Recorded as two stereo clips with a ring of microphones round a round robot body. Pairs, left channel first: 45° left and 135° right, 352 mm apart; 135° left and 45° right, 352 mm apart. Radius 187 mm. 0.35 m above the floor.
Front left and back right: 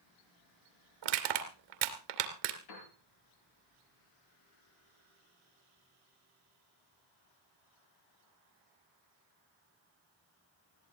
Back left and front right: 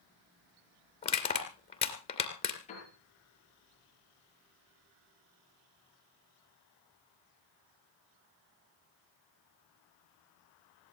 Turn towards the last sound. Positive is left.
turn(degrees=65)